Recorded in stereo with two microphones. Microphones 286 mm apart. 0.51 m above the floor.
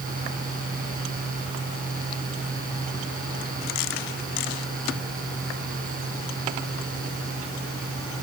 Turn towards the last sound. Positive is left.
No sound to turn to.